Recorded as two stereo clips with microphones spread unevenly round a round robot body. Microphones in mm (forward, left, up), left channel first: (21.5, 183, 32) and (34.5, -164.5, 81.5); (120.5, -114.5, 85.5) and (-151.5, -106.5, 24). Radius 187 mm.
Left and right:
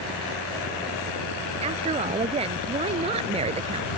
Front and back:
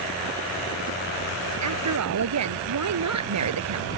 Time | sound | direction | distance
1.6 | a woman speaking | 160° right | ?